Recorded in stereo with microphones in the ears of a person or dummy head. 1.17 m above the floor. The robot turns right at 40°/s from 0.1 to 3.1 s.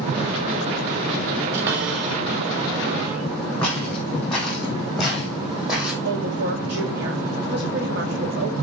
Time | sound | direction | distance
1.5 | a cupboard door | 75° right (ahead or behind) | 3.5 m
3.6 | footsteps | 5° left (ahead or behind) | 4.5 m
6.0 | a woman speaking | 60° right (ahead or behind) | 2.5 m